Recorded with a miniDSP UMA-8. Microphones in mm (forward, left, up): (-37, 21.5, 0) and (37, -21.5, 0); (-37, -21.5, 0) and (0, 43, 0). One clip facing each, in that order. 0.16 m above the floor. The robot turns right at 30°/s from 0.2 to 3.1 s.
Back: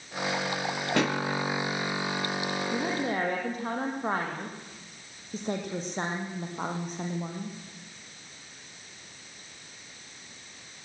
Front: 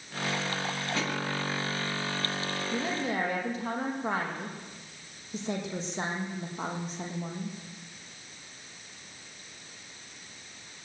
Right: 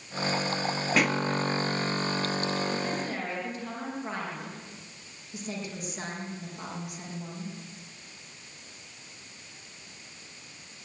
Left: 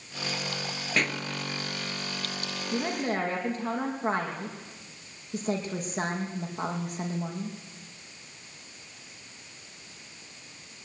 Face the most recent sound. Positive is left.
turn(degrees=110)